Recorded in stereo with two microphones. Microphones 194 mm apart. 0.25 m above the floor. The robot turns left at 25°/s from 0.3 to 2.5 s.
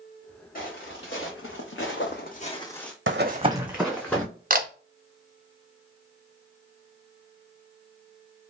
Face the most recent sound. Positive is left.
turn(degrees=-45)  # may be behind; listen again after turning